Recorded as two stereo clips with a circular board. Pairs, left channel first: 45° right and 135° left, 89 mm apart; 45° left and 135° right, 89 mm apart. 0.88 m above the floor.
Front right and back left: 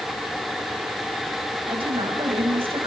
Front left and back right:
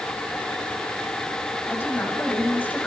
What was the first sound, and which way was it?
A woman speaking, 115° left.